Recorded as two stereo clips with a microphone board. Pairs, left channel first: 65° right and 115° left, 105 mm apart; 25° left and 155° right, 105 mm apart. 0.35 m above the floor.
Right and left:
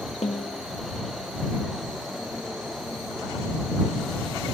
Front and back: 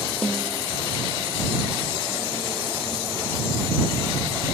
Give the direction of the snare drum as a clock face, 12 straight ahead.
2 o'clock.